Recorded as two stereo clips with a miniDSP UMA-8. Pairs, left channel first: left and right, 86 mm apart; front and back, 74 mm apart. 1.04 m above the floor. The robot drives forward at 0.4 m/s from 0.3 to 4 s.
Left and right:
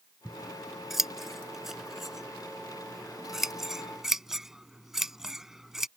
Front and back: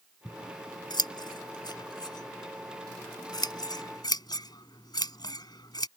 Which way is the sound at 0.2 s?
5° right.